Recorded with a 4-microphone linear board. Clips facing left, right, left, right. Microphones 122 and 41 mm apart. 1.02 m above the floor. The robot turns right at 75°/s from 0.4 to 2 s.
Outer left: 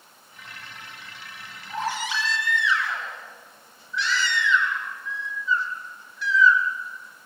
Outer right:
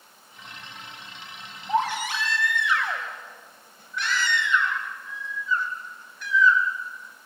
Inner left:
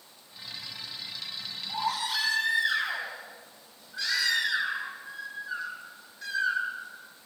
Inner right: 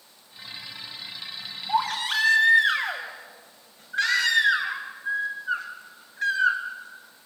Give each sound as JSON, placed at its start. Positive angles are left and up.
{"t": 1.7, "sound": "a baby crying", "side_deg": -75, "distance_m": 4.5}